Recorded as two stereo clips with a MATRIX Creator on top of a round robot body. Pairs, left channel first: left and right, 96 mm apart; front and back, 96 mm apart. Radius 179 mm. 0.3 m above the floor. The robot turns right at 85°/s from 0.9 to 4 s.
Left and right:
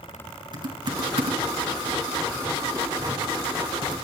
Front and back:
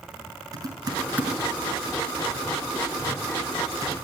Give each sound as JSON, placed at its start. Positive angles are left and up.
{"t": 0.5, "sound": "typing on a keyboard", "azimuth_deg": -130, "distance_m": 5.5}